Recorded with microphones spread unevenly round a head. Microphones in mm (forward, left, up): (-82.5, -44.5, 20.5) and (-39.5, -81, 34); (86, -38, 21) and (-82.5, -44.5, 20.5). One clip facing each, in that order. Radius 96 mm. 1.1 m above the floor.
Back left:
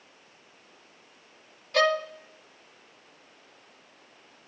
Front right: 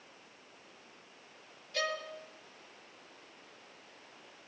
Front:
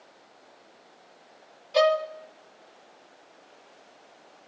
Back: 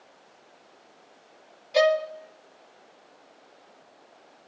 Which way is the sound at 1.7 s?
100° left.